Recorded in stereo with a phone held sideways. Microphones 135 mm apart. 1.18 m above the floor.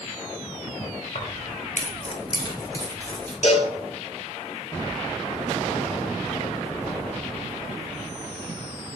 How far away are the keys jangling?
About 0.7 m.